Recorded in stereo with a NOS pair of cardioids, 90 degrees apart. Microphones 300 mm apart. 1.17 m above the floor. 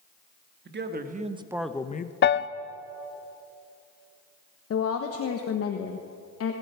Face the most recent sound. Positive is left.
turn(degrees=50)